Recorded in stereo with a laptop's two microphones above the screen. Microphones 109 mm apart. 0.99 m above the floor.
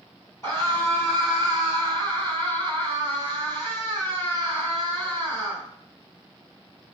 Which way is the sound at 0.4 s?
30° left (ahead or behind).